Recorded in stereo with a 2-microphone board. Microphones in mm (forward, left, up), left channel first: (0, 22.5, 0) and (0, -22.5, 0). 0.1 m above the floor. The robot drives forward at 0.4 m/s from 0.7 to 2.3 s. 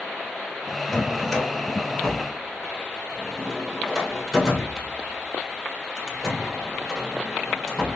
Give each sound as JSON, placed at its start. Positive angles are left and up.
{"t": 0.9, "sound": "a drawer", "side_deg": 5, "distance_m": 1.2}